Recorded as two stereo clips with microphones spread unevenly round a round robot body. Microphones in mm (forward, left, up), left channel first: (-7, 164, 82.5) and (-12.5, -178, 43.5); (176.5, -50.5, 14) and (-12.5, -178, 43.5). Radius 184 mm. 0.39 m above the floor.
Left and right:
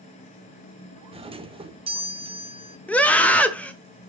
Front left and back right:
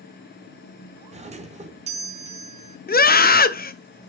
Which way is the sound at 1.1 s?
115° right.